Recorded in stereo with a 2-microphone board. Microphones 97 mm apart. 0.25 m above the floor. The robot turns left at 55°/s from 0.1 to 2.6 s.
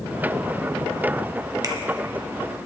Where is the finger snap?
40° right (ahead or behind), 1.4 m; by 1.7 s 45° right (ahead or behind), 1.4 m.